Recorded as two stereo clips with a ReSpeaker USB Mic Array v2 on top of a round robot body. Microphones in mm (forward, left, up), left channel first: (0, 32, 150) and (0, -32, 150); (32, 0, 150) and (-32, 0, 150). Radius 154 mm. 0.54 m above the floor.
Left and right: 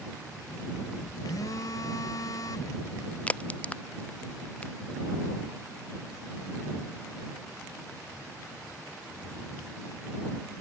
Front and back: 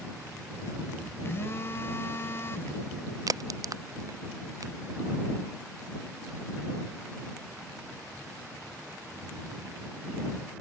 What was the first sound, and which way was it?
A phone buzzing, 55° left.